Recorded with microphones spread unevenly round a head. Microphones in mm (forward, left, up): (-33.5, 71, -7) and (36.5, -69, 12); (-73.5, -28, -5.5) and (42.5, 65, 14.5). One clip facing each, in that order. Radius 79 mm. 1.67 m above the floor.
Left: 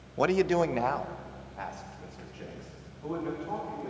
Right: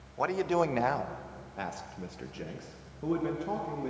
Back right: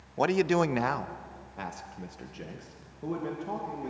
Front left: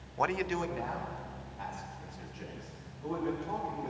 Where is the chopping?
I don't hear chopping.